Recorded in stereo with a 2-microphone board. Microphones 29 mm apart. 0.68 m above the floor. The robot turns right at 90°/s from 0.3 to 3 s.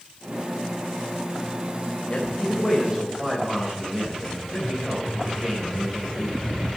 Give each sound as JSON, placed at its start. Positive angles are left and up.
{"t": 2.1, "sound": "a man speaking", "azimuth_deg": 135, "distance_m": 3.5}